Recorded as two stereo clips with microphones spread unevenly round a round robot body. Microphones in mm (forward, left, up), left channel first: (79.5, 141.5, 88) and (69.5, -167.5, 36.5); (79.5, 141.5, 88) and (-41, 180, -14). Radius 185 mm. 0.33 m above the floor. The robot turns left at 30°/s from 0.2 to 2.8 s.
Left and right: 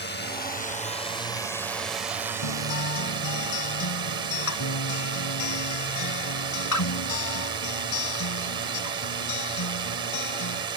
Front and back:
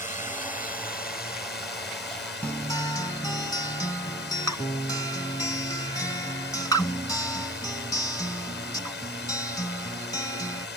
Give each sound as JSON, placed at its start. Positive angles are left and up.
{"t": 0.0, "sound": "a drone", "azimuth_deg": 40}
{"t": 2.4, "sound": "a guitar", "azimuth_deg": 70}